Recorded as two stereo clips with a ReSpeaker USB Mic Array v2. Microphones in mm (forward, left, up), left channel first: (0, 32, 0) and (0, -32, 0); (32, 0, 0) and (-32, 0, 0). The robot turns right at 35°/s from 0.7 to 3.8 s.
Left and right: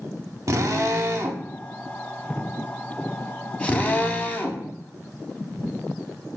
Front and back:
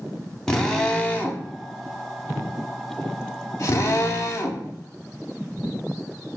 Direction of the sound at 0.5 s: 80° right.